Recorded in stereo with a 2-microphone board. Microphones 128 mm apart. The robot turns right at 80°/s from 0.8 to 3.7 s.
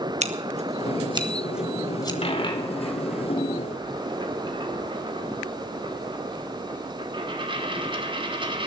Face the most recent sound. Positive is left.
turn(degrees=-40)  # may be behind; listen again after turning